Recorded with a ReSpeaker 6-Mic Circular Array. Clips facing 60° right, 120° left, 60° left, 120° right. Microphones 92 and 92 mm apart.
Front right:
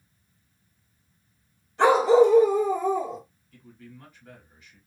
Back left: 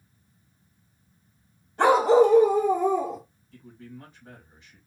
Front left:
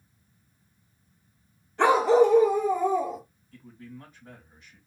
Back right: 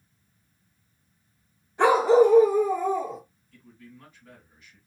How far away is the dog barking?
About 1.9 m.